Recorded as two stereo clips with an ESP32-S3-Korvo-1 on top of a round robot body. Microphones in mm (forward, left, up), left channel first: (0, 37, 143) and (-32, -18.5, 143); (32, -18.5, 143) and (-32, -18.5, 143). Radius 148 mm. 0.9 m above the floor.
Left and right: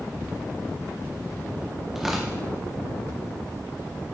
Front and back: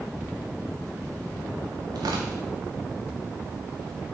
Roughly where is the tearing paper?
Behind left.